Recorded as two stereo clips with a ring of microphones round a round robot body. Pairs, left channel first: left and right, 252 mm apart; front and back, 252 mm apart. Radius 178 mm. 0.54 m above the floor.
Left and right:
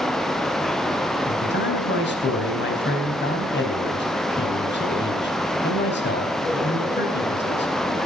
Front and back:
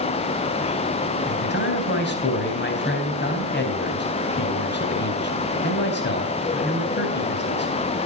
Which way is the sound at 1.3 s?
45° left.